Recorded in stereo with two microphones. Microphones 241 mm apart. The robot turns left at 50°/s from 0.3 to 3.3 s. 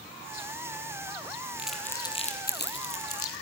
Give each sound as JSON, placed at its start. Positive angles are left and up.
{"t": 1.6, "sound": "crumpling", "side_deg": -5, "distance_m": 2.5}